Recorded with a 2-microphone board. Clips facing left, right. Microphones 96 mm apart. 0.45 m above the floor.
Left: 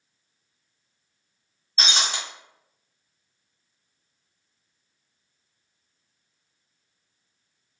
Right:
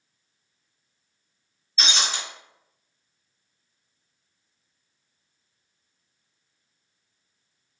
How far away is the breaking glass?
About 0.9 m.